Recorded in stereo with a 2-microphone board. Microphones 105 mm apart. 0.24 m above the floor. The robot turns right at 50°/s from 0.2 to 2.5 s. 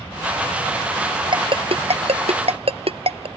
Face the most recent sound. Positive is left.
turn(degrees=-70)  # may be behind; listen again after turning